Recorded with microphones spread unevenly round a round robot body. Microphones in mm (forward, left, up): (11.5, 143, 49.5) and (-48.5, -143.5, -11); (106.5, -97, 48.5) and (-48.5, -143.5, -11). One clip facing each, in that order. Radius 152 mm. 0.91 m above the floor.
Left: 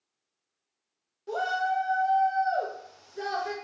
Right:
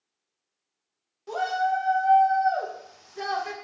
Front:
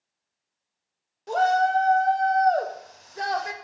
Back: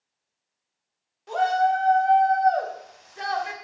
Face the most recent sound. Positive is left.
turn(degrees=-40)